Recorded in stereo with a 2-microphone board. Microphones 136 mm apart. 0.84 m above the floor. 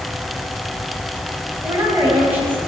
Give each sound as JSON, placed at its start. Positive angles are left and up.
{"t": 1.6, "sound": "a woman speaking", "side_deg": -15, "distance_m": 5.0}